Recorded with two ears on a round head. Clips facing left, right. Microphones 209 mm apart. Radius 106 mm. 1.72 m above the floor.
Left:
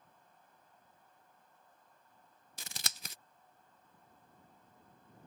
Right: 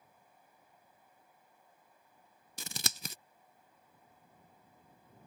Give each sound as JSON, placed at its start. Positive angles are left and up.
{"t": 2.6, "sound": "scissors", "side_deg": -80}